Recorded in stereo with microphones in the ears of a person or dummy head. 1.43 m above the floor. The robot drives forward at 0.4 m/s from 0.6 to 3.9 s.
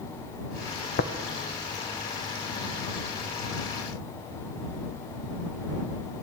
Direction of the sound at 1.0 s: 45° left (ahead or behind).